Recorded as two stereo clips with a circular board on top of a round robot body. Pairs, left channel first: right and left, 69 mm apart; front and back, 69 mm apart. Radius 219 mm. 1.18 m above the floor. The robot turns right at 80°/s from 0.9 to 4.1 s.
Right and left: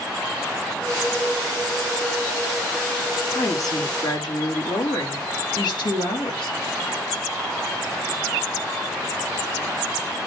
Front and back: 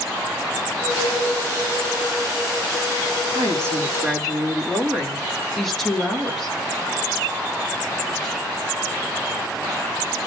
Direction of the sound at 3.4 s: 145° right.